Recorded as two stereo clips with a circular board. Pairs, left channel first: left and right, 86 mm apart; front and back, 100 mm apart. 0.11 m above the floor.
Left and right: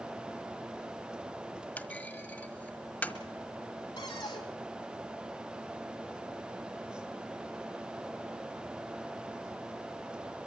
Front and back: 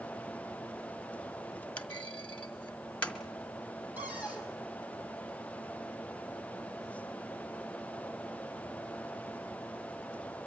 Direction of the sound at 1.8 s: 60° left.